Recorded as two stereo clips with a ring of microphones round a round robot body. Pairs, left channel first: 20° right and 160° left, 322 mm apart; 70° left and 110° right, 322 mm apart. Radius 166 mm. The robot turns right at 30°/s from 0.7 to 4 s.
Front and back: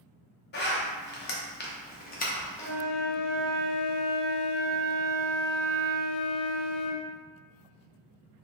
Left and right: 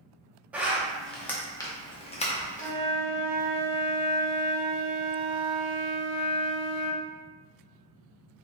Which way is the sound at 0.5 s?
30° right.